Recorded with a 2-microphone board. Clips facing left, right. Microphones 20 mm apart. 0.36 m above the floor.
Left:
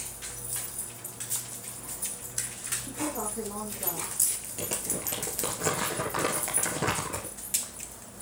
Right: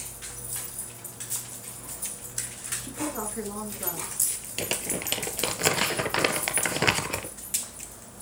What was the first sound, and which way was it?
A woman speaking, 50° right (ahead or behind).